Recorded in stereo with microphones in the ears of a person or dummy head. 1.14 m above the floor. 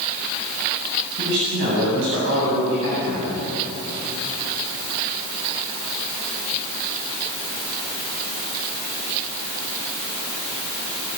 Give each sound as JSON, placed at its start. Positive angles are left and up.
{"t": 1.2, "sound": "a man speaking", "side_deg": -70, "distance_m": 9.0}